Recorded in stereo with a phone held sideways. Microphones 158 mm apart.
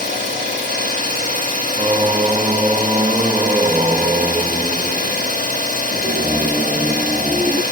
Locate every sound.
0.0 s an engine running: 50° right (ahead or behind), 2.5 m
1.8 s singing: 30° right (ahead or behind), 0.5 m